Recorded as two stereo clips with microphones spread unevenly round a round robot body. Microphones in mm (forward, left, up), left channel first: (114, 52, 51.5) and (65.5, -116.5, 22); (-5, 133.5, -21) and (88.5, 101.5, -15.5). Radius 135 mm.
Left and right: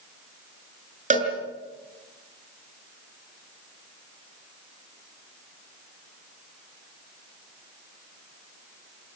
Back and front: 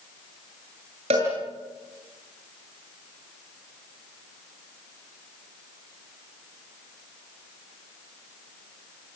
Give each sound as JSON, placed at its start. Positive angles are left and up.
{"t": 1.1, "sound": "a cowbell", "azimuth_deg": -65, "distance_m": 6.5}